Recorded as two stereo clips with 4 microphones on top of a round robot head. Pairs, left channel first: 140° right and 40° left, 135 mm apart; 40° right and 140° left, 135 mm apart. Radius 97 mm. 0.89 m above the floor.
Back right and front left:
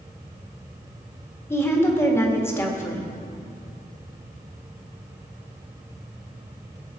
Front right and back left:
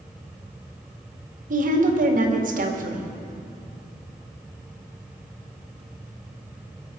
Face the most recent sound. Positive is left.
turn(degrees=145)